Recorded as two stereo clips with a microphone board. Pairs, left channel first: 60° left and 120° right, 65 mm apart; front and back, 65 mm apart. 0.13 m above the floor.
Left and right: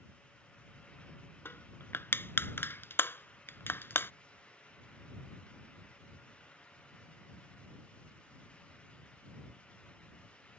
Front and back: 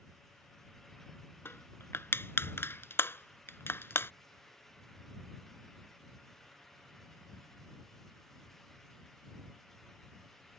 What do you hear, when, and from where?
1.4 s crushing: 30° left